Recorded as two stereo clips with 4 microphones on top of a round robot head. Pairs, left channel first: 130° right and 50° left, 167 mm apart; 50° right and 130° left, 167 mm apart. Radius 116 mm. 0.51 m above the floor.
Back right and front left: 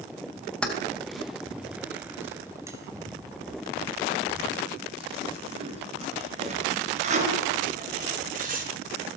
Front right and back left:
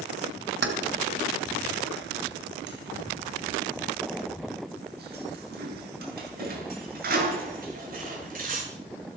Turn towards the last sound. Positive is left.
turn(degrees=90)